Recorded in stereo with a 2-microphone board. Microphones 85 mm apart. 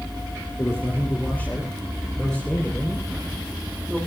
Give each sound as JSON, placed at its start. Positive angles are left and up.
{"t": 0.6, "sound": "a man speaking", "side_deg": 25, "distance_m": 6.0}